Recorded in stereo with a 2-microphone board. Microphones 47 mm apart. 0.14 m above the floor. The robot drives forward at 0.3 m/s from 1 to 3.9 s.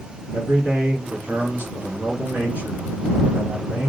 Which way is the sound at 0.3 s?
40° right (ahead or behind).